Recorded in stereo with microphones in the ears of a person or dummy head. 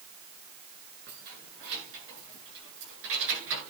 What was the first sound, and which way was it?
Keys jangling, 55° right (ahead or behind).